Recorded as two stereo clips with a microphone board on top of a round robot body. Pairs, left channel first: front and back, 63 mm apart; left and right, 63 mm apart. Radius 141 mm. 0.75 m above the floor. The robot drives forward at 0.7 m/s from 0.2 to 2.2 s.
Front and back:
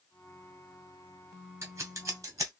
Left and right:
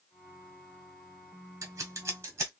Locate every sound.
1.6 s scissors: 130° right, 1.6 m; by 2.5 s 140° right, 1.9 m